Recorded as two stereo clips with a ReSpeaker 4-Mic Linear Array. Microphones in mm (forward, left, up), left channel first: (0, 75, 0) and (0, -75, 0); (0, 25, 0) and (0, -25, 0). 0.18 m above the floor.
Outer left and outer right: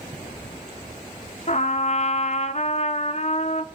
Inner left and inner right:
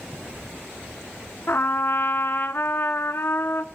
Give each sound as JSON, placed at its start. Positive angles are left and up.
{"t": 1.5, "sound": "a trumpet", "side_deg": 50, "distance_m": 1.0}